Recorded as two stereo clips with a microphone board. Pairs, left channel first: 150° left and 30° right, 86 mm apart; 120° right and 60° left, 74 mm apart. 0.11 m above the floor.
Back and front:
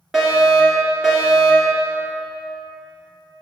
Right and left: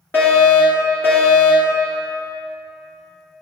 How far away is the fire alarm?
About 2.5 m.